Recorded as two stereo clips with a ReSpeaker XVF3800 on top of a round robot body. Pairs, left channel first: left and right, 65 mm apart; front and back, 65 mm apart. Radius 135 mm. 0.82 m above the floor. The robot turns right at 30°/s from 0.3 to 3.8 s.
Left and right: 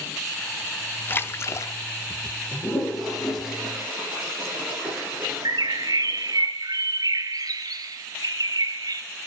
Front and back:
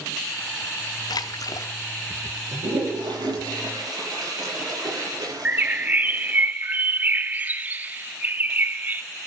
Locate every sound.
1.1 s a splash: 30° left, 0.7 m; by 1.7 s 50° left, 0.7 m
2.5 s a toilet flushing: 165° left, 8 m; by 6.5 s 160° right, 8 m
5.5 s a bird: 115° right, 1.2 m